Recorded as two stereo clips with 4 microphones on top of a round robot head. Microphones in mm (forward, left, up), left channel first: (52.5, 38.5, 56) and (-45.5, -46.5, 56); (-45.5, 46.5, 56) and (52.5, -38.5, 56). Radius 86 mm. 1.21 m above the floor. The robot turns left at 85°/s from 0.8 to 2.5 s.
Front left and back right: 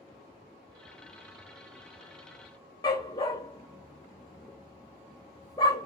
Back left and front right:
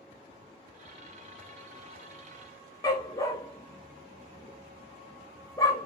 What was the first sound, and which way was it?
A dog barking, 90° left.